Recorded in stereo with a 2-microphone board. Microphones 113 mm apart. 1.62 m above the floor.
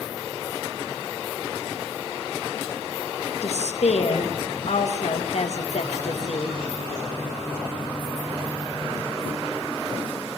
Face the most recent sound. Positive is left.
turn(degrees=70)  # may be behind; listen again after turning